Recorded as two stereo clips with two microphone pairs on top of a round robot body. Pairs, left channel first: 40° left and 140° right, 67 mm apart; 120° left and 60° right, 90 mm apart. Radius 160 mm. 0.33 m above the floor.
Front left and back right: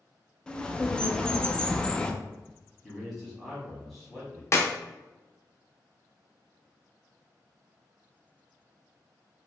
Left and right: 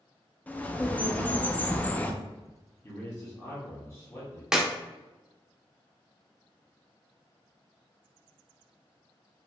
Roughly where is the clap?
Ahead left.